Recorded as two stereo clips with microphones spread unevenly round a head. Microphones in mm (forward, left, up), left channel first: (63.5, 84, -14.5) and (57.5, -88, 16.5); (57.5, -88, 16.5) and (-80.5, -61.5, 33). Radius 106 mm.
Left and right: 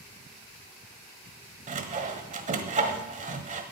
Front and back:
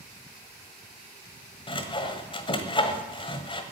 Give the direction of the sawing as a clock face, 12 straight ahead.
2 o'clock.